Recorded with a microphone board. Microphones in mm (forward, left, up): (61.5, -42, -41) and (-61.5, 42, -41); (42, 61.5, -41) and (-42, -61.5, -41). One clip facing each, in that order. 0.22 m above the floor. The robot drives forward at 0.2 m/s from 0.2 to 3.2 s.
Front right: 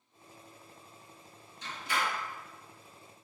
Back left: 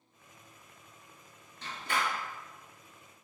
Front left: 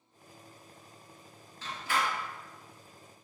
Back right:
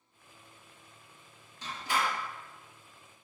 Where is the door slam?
165° left, 1.8 m.